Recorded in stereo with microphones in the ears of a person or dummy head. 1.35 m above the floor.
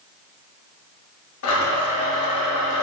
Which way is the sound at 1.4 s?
75° left (ahead or behind).